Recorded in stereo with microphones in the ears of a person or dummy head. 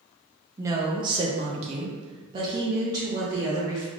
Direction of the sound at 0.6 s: 15° right (ahead or behind).